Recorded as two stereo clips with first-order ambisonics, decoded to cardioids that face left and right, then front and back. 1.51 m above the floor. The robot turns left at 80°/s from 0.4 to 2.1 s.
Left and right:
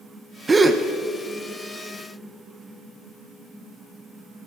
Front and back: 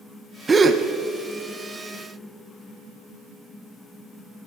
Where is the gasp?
135° right, 0.6 m; by 0.8 s 160° right, 0.6 m.